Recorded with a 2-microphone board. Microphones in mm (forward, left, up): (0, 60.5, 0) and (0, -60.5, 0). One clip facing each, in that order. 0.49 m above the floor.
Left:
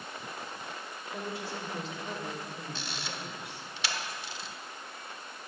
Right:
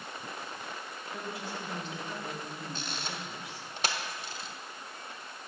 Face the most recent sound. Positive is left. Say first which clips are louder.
# right 1 dB
turn(degrees=-45)  # may be behind; listen again after turning